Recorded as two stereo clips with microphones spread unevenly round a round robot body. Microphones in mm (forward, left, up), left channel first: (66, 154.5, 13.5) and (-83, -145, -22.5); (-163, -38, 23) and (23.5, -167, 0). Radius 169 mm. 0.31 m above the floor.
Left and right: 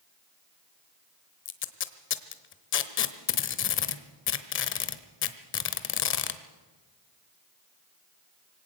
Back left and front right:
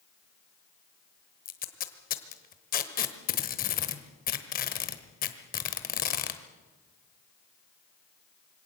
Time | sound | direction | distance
1.4 | tape being pulled | 105° left | 1.2 m